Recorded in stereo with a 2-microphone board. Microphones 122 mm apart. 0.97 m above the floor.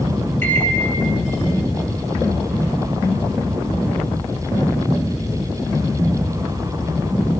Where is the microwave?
15° left (ahead or behind), 1.0 m.